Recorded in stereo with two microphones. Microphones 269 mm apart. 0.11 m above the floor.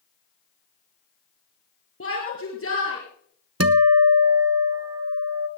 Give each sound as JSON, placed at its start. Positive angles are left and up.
{"t": 2.0, "sound": "a shout", "side_deg": 50, "distance_m": 2.5}
{"t": 3.6, "sound": "a guitar", "side_deg": -55, "distance_m": 0.7}